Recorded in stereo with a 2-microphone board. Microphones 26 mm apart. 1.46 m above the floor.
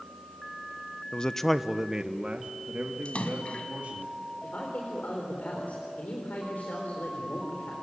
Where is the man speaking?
35° left (ahead or behind), 0.8 m; by 4.0 s 65° right (ahead or behind), 3 m.